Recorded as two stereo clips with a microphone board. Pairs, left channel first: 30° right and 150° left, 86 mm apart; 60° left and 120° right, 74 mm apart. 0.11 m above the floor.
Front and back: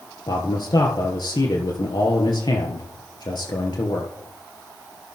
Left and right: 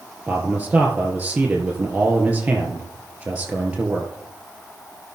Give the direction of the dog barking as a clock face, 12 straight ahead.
No dog barking in this recording.